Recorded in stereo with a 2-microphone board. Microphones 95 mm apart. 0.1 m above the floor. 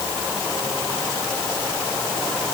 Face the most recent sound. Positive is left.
No sound to turn to.